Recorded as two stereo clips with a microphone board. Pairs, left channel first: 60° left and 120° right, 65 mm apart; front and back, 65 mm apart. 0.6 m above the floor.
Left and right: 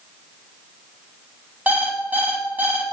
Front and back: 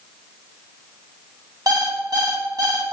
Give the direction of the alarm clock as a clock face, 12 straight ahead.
6 o'clock.